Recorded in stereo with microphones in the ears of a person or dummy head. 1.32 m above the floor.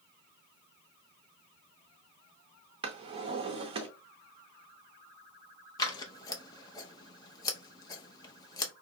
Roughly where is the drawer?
Right.